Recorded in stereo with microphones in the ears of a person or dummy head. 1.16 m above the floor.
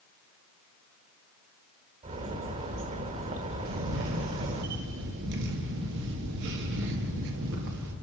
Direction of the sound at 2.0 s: 30° right (ahead or behind).